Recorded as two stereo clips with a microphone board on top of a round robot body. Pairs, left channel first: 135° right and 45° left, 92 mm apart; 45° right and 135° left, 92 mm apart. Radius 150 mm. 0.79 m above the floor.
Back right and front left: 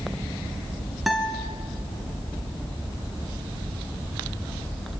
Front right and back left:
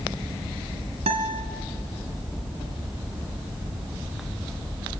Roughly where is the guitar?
Behind left.